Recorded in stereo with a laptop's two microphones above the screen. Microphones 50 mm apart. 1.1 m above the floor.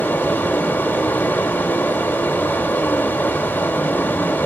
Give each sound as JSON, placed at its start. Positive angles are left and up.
{"t": 0.0, "sound": "running water", "side_deg": 50, "distance_m": 2.0}